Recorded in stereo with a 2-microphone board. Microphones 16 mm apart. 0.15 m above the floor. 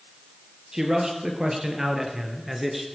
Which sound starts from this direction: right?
A man speaking, at 0.7 s.